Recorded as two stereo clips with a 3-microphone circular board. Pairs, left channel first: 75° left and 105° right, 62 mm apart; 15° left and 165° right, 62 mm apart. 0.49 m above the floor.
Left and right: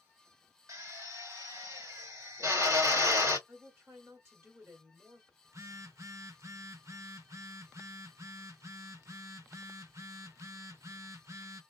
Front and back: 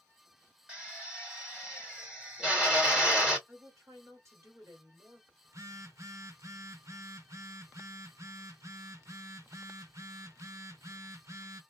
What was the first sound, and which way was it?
A drill, 90° right.